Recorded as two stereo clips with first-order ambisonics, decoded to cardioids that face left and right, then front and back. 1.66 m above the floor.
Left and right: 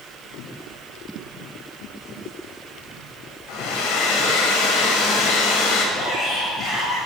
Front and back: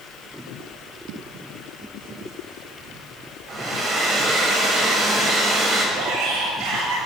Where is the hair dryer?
120° left, 5.5 m.